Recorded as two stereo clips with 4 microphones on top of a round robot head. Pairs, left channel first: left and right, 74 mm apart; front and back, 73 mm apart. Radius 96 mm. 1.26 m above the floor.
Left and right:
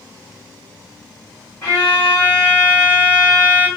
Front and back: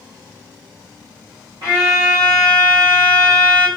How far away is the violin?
About 1.8 m.